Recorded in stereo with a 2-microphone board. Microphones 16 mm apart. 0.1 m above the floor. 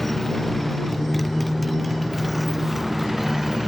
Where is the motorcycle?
10° left (ahead or behind); by 3.7 s 15° right (ahead or behind).